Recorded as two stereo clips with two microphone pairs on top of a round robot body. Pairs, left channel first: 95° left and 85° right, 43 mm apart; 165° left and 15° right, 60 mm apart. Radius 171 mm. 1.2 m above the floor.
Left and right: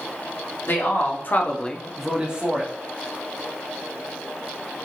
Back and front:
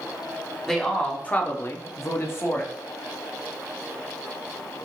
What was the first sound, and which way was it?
A man speaking, 85° left.